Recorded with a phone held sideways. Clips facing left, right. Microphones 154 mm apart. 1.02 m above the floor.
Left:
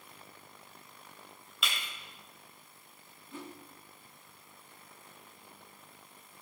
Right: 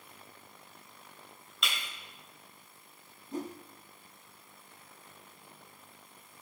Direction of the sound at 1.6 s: Centre (ahead or behind).